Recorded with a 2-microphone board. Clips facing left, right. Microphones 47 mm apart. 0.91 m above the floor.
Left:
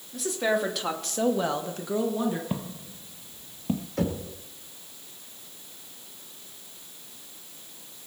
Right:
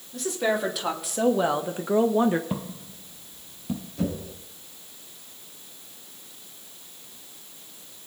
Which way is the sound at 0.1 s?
Centre (ahead or behind).